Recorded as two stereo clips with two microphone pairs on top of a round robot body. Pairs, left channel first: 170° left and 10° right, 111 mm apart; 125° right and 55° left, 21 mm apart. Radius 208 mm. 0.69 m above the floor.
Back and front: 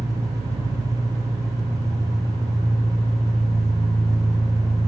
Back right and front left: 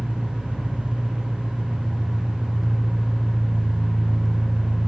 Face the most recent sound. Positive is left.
turn(degrees=50)